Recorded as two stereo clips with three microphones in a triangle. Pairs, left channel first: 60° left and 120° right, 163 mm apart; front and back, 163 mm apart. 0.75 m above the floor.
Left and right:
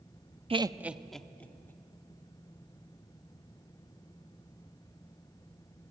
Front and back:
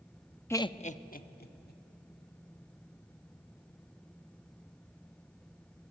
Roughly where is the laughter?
Right.